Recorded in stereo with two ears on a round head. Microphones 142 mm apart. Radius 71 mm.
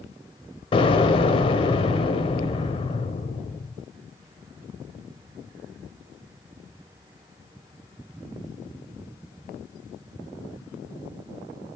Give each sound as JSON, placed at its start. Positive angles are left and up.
{"t": 0.7, "sound": "an explosion", "side_deg": 35, "distance_m": 1.4}